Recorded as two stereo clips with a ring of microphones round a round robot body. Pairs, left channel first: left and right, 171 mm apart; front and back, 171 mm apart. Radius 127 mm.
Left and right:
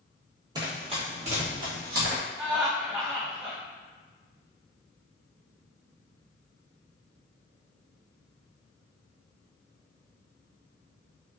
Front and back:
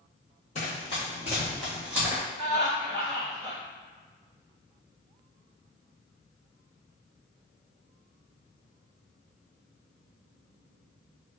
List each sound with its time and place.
0.6 s running footsteps: 35° right, 1.0 m; by 2.2 s 105° right, 1.3 m
2.4 s laughter: 5° right, 1.0 m